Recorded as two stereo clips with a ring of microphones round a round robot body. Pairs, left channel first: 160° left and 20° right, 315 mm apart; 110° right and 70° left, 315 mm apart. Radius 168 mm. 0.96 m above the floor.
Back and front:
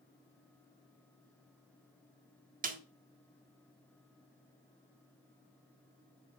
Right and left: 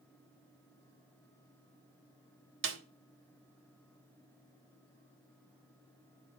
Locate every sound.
2.6 s a snare drum: 35° left, 1.2 m